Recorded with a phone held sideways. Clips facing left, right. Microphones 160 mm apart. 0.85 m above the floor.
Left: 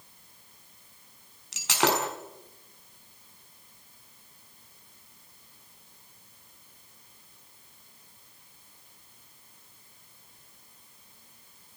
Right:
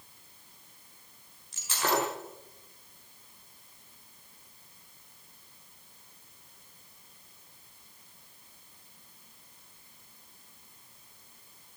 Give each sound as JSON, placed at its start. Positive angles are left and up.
{"t": 1.5, "sound": "breaking glass", "side_deg": 85, "distance_m": 5.5}